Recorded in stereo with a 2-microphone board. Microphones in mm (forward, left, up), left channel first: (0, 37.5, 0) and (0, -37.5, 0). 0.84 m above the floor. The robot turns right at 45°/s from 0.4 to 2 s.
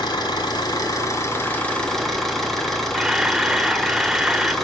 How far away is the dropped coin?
No dropped coin in this recording.